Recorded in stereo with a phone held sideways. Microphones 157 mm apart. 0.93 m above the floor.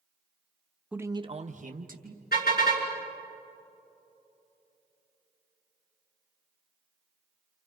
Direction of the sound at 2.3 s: 80° left.